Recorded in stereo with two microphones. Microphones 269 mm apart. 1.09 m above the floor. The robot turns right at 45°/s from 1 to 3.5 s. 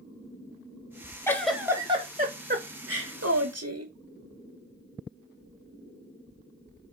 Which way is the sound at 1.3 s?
170° left.